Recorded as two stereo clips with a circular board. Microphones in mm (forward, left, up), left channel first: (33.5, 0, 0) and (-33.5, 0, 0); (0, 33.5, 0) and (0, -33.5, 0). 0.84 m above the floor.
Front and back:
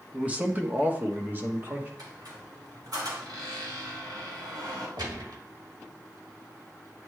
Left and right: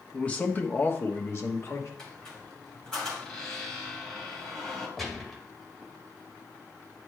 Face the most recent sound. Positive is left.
turn(degrees=175)